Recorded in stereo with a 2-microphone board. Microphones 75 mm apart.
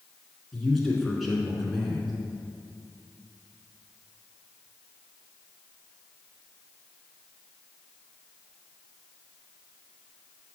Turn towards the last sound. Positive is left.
turn(degrees=0)  # may be behind; listen again after turning